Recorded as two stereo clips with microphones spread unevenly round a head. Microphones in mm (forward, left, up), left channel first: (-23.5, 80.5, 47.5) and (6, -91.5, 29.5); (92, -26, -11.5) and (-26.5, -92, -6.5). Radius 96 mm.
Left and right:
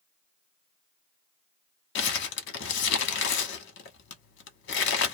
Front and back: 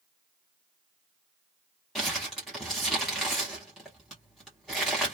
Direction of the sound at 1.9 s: 120° left.